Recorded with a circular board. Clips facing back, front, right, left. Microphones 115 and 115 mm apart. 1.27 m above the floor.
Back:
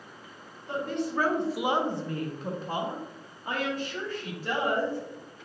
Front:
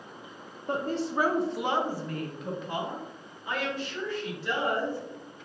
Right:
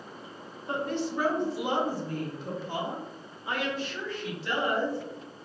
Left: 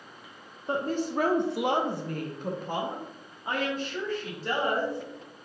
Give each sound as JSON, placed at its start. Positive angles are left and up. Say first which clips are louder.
{"t": 0.7, "sound": "a woman speaking", "louder": "front 1 dB, left 2 dB", "azimuth_deg": 30, "distance_m": 0.5}